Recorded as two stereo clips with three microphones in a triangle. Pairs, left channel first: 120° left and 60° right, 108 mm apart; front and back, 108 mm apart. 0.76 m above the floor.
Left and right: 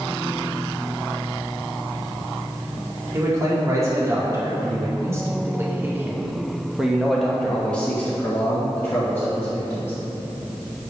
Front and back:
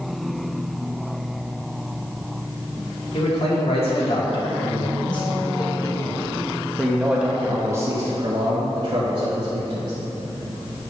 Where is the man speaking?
5° right, 2 m; by 9.9 s straight behind, 1.9 m.